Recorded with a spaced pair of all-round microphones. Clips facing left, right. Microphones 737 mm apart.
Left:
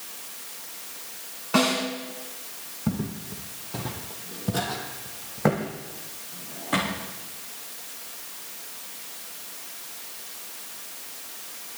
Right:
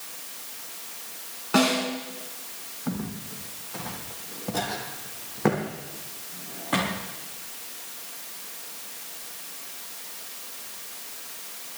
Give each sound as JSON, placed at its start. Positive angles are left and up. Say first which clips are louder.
{"t": 1.5, "sound": "a snare drum", "louder": "right 1 dB", "side_deg": 10, "distance_m": 3.0}
{"t": 2.9, "sound": "footsteps", "louder": "left 3 dB", "side_deg": 55, "distance_m": 3.0}